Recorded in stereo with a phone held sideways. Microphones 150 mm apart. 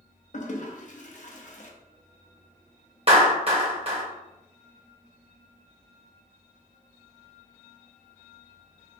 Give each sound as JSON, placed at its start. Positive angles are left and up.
{"t": 0.3, "sound": "a toilet flushing", "side_deg": 55, "distance_m": 0.6}
{"t": 3.1, "sound": "a clap", "side_deg": -40, "distance_m": 1.0}